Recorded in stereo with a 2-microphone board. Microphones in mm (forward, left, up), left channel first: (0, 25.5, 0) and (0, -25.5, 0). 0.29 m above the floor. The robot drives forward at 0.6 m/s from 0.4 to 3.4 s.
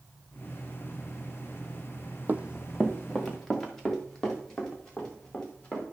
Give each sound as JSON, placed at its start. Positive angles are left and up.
{"t": 2.3, "sound": "running footsteps", "side_deg": -35, "distance_m": 0.5}